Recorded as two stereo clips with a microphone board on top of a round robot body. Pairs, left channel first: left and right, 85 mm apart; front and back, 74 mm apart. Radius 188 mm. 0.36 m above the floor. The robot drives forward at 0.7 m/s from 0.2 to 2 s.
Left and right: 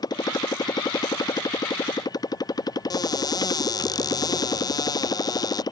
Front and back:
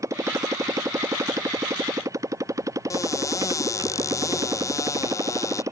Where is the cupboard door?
45° left.